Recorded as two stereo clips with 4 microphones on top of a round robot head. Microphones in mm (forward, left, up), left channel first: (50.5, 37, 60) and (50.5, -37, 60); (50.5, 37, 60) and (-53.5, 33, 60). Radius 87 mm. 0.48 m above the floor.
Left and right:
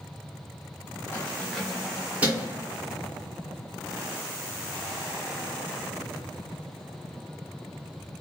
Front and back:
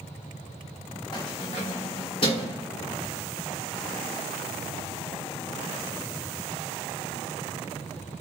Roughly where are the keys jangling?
Ahead left.